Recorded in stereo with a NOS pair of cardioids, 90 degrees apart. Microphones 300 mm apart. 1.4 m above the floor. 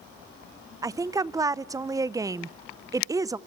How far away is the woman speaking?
About 0.8 m.